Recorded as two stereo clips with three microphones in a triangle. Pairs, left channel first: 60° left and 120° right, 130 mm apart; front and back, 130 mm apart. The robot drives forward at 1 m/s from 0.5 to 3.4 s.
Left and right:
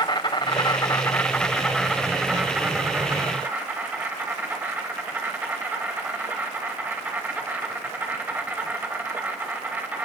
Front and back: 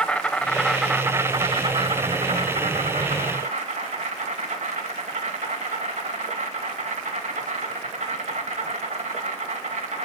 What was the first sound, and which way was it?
An insect, 75° left.